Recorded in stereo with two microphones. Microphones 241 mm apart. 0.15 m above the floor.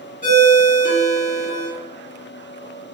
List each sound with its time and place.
0.2 s a ringtone: 25° left (ahead or behind), 1.7 m